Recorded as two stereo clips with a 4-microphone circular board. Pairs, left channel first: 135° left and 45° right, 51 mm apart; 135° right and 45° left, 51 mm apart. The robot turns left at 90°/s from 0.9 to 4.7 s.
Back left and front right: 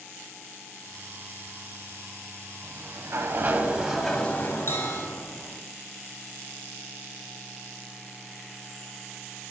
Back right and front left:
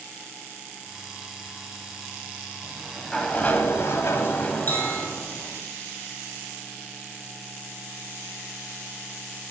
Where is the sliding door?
15° right, 0.8 m; by 5.6 s 160° left, 0.8 m.